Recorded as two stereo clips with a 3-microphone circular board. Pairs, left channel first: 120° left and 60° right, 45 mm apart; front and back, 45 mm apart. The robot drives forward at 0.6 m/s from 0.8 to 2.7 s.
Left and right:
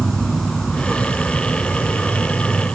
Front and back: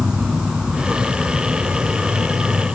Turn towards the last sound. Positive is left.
turn(degrees=175)